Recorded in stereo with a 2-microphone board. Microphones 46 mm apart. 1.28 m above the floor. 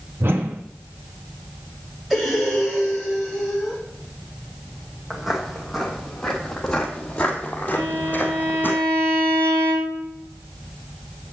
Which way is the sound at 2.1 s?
Centre (ahead or behind).